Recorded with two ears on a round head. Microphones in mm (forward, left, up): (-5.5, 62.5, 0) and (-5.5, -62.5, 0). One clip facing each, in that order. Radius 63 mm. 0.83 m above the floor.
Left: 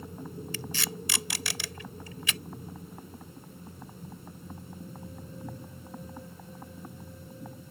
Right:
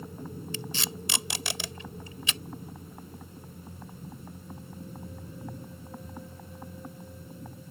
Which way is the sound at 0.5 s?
20° right (ahead or behind).